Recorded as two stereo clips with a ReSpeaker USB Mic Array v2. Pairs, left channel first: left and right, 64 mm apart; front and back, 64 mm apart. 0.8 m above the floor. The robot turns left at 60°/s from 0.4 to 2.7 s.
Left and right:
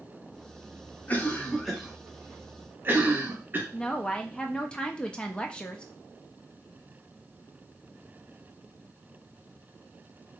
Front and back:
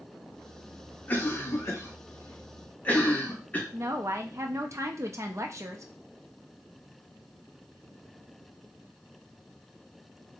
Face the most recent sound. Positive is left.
turn(degrees=165)